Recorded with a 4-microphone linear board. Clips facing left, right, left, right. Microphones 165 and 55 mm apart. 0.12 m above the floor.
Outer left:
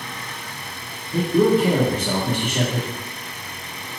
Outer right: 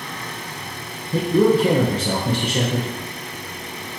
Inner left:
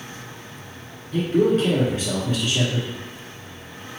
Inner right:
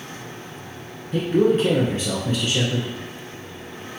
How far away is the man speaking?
About 1.2 m.